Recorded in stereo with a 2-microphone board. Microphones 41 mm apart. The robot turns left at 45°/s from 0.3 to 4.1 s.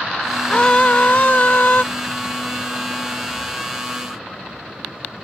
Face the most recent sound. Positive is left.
turn(degrees=-15)